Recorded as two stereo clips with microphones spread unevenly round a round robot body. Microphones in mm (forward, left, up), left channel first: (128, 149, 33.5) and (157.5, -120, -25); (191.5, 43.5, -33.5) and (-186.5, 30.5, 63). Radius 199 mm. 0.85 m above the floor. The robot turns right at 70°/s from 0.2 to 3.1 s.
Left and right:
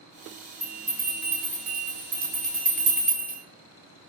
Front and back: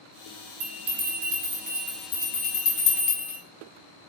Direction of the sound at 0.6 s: 175° right.